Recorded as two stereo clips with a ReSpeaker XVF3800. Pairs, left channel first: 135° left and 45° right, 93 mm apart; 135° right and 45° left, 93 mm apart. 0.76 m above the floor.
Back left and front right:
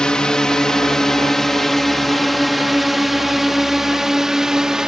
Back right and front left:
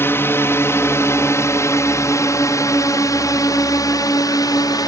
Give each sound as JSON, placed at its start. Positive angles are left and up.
{"t": 0.0, "sound": "a drone", "azimuth_deg": -155}